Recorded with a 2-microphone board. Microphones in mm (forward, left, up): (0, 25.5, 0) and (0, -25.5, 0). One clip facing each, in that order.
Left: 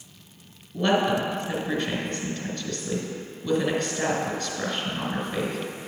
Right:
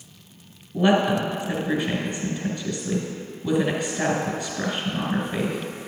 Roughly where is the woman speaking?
Centre.